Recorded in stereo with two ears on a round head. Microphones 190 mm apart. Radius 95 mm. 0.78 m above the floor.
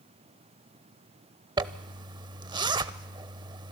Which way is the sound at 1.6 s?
20° right (ahead or behind).